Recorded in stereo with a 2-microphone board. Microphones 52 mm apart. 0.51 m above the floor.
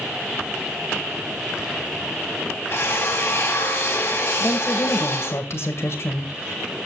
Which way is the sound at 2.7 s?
50° left (ahead or behind).